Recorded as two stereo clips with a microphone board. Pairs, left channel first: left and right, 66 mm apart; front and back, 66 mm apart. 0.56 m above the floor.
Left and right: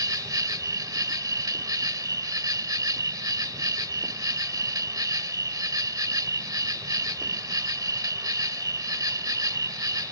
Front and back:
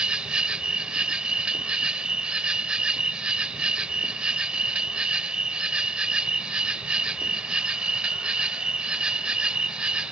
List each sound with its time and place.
0.0 s an insect: 105° right